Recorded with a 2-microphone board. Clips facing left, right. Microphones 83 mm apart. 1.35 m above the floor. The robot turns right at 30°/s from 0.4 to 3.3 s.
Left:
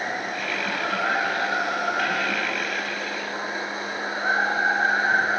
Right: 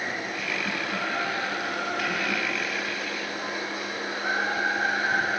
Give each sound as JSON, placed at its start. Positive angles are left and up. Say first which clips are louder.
{"t": 0.0, "sound": "running water", "louder": "left 3 dB", "azimuth_deg": 55, "distance_m": 6.5}